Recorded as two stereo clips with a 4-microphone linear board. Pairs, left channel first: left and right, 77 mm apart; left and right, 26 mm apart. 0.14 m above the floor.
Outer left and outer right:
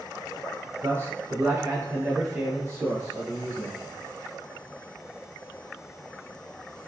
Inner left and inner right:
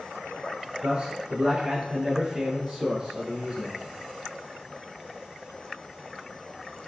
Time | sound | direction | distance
0.8 | a man speaking | 30° right (ahead or behind) | 1.2 m